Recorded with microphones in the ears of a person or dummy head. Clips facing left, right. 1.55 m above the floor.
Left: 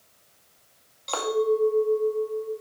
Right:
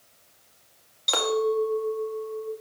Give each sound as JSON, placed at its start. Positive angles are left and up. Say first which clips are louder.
{"t": 1.1, "sound": "a clink", "louder": "left 1 dB", "side_deg": -25, "distance_m": 1.9}